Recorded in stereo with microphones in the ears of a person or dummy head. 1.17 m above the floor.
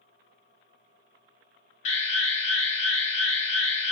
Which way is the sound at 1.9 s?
40° left (ahead or behind).